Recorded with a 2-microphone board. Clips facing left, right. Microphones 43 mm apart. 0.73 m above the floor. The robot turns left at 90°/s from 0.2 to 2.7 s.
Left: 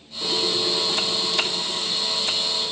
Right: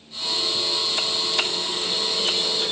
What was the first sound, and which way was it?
A squeak, 110° left.